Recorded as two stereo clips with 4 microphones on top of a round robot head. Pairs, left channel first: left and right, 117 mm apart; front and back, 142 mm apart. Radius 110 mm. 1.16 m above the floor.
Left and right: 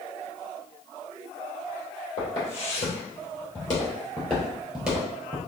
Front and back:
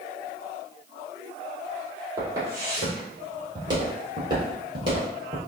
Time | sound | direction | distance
2.2 | footsteps | 110° left | 1.9 m